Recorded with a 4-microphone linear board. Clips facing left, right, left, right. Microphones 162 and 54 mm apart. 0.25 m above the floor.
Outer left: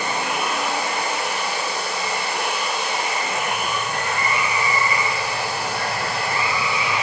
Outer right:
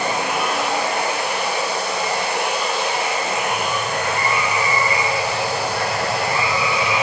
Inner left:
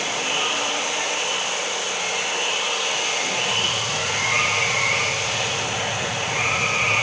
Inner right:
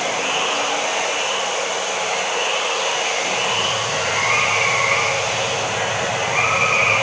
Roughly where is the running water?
Right.